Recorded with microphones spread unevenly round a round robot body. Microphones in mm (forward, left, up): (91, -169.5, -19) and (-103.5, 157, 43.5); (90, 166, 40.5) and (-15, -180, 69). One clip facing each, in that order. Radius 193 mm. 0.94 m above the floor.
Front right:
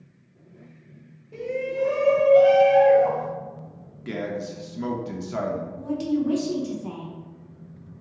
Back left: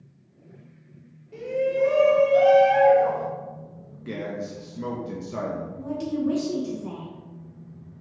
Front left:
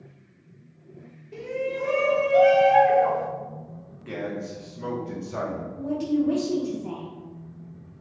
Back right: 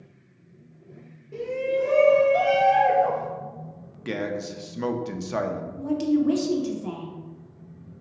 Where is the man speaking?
130° right, 0.5 m.